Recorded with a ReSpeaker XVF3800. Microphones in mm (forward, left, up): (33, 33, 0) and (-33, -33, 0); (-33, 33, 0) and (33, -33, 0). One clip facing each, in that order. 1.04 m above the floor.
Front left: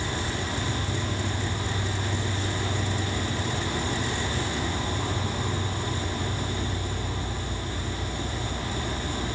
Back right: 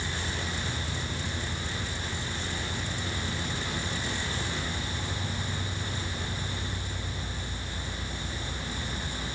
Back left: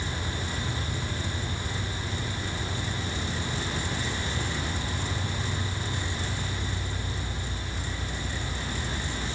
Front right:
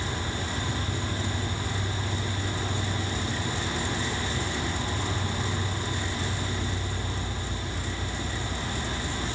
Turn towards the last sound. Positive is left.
turn(degrees=15)